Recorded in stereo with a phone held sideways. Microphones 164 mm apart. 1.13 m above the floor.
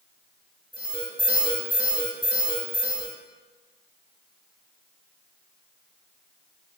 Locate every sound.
0.7 s an alarm: 30° left (ahead or behind), 2 m